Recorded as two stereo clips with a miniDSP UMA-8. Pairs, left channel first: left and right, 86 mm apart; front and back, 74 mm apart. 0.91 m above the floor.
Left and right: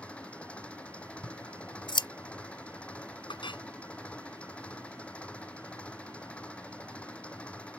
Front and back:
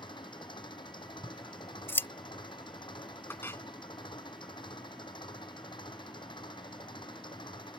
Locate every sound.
0.0 s an engine running: 10° left
1.2 s scissors: 60° left
3.3 s a clink: 60° left